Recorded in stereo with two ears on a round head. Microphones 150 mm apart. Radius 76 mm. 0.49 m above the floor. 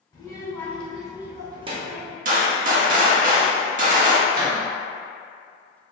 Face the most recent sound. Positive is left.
turn(degrees=-55)  # may be behind; listen again after turning